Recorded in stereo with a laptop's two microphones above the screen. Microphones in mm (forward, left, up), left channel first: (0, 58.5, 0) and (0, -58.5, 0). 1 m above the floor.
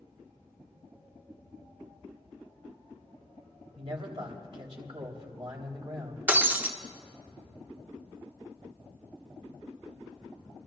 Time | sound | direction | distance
3.8 | a man speaking | 50° right (ahead or behind) | 2.5 m
6.3 | breaking glass | 15° right (ahead or behind) | 0.6 m